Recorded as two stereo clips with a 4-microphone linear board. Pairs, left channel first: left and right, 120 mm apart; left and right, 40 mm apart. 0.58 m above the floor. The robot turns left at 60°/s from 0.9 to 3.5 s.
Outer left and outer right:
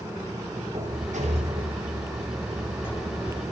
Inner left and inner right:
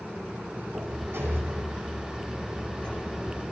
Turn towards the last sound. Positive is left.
turn(degrees=120)